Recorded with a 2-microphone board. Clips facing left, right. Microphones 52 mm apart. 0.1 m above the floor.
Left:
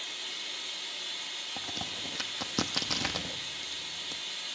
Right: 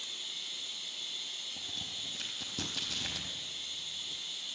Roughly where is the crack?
Left.